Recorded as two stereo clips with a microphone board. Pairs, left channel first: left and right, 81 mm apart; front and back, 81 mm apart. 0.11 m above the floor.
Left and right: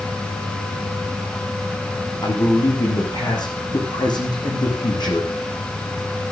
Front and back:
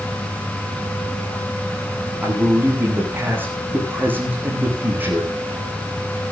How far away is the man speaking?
About 8 m.